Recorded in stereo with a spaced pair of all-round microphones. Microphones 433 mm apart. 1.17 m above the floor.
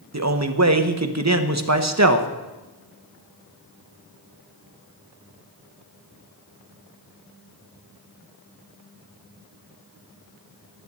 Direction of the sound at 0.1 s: 40° right (ahead or behind).